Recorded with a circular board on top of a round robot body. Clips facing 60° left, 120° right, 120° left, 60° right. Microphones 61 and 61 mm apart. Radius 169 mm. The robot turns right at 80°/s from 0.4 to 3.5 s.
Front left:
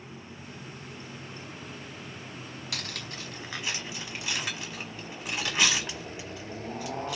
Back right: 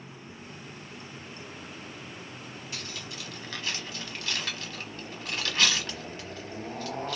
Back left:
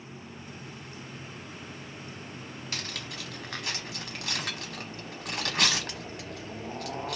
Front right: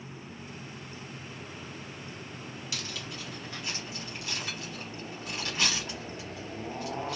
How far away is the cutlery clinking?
About 0.9 m.